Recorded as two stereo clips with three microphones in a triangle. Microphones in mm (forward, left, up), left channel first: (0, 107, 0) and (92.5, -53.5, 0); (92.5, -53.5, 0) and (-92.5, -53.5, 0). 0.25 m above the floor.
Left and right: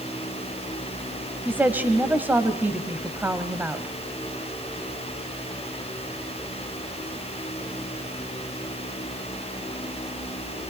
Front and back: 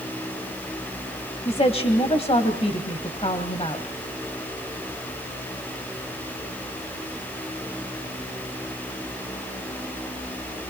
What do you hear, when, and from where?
1.4 s a woman speaking: 10° left, 1.4 m